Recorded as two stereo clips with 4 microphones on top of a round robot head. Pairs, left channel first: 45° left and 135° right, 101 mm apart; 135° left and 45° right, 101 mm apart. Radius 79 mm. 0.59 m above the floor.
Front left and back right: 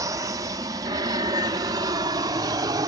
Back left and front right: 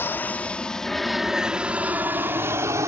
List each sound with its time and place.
0.0 s an aircraft: 165° right; by 2.9 s 95° right